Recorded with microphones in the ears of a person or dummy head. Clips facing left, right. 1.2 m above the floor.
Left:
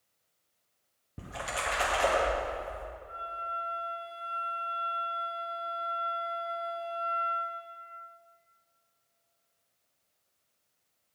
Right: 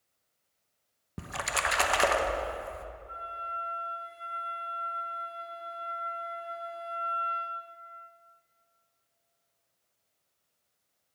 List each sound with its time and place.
1.2 s a splash: 70° right (ahead or behind), 0.6 m
3.1 s a flute: 45° right (ahead or behind), 1.4 m